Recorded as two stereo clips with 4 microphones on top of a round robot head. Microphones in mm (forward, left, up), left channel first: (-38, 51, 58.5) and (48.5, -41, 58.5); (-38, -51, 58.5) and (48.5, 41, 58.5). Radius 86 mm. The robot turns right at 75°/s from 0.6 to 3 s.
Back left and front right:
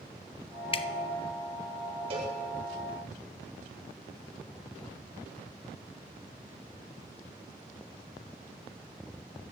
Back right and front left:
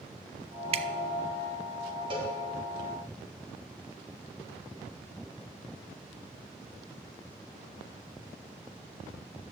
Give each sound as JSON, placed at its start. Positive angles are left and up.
{"t": 0.7, "sound": "dripping", "azimuth_deg": 85, "distance_m": 0.7}
{"t": 2.1, "sound": "a cowbell", "azimuth_deg": -5, "distance_m": 2.5}